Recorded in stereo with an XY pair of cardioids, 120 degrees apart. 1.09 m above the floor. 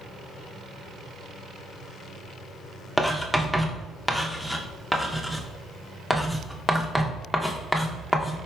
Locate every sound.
3.0 s writing: straight ahead, 0.5 m